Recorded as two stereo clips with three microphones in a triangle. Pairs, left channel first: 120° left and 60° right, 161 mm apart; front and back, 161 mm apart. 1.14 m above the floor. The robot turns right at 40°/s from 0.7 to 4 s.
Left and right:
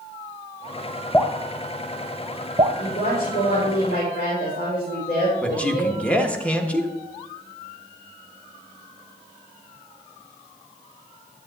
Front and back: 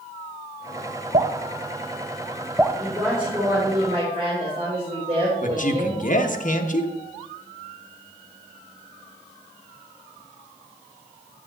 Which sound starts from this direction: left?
A woman speaking, at 2.8 s.